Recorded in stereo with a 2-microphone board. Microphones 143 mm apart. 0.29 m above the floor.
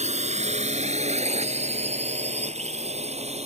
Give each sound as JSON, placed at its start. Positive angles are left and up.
{"t": 0.0, "sound": "a drone", "side_deg": -50}